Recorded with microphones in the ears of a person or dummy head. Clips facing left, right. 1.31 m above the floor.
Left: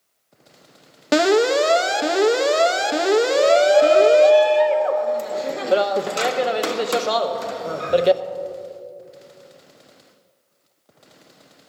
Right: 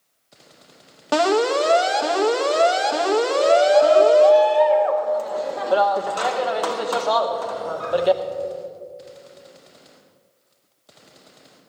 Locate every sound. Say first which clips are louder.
1.1 s an alarm: left 2 dB; 25° left (ahead or behind), 0.7 m
3.3 s a shout: even; 30° left (ahead or behind), 0.6 m